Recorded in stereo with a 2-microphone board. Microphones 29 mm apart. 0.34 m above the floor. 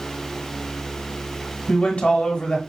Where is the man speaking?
45° left (ahead or behind), 1.1 m.